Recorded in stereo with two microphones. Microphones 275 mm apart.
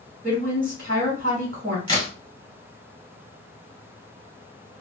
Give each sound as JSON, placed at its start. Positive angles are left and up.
{"t": 0.2, "sound": "a woman speaking", "side_deg": -40, "distance_m": 1.3}
{"t": 1.9, "sound": "a crack", "side_deg": 15, "distance_m": 1.7}